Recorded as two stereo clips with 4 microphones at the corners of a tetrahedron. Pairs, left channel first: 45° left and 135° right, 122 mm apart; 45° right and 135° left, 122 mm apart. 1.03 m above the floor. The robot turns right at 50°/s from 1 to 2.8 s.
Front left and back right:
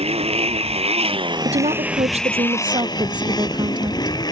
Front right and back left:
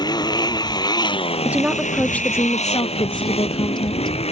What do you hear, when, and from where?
0.0 s a motorcycle: 100° right; by 4.3 s 10° right
1.4 s a woman speaking: 155° right; by 4.2 s 90° right